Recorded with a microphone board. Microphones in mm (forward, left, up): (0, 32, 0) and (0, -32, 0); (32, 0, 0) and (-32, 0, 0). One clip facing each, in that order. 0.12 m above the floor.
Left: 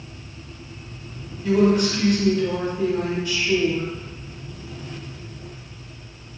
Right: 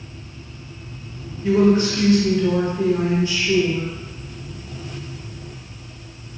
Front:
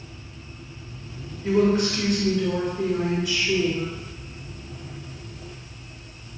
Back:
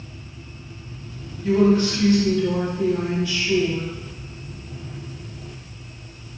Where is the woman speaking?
65° right, 1.6 m.